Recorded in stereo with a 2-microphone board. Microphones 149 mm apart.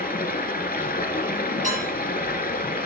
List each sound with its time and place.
0.0 s running water: 80° left, 1.1 m
1.6 s dishes clattering: 60° right (ahead or behind), 4.5 m